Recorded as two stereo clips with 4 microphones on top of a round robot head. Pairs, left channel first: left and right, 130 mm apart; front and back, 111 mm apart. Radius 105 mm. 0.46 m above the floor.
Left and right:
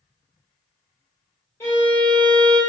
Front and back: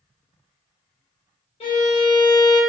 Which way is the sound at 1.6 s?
20° left.